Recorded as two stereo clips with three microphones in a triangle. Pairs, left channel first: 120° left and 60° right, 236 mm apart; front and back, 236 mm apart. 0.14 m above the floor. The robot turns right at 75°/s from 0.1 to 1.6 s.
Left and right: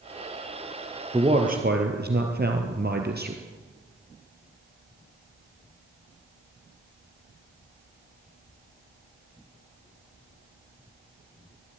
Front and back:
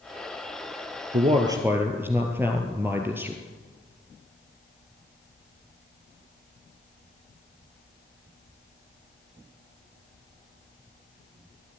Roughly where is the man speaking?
Behind right.